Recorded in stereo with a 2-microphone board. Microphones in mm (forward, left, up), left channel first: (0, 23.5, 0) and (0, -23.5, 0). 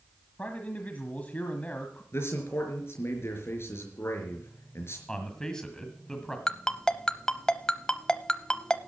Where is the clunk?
I don't hear a clunk.